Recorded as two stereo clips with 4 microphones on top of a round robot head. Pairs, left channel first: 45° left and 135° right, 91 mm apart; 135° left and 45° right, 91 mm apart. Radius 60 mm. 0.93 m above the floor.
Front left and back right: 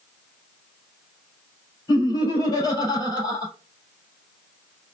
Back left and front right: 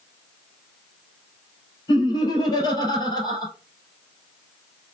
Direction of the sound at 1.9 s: 95° left.